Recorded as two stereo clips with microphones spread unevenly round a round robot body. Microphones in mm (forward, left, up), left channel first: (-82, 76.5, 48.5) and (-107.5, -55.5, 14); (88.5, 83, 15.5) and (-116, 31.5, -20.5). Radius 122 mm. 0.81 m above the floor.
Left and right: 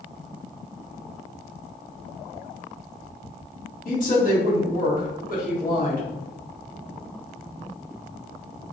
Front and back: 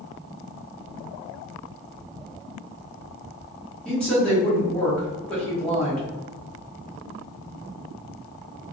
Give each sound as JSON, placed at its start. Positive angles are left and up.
{"t": 3.9, "sound": "a woman speaking", "azimuth_deg": 105, "distance_m": 1.3}